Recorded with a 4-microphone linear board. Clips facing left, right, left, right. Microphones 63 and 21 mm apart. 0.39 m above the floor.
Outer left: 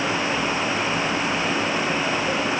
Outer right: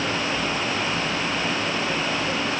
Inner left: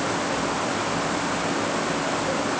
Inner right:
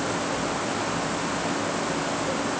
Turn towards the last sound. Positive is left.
No sound to turn to.